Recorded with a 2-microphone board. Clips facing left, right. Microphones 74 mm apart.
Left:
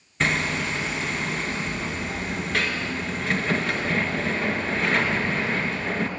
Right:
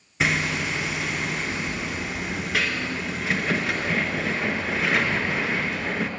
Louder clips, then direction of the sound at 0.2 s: Even; 5° right (ahead or behind).